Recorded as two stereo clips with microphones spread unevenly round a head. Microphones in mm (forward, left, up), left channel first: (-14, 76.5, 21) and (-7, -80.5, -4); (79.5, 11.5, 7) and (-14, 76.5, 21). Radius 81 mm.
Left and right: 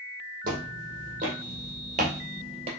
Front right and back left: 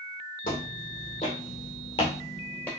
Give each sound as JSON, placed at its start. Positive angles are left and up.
{"t": 0.4, "sound": "footsteps", "azimuth_deg": -50, "distance_m": 2.5}